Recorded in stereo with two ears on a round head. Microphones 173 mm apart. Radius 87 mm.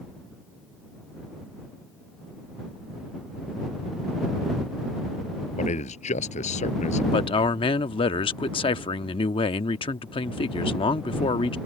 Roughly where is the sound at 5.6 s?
Left.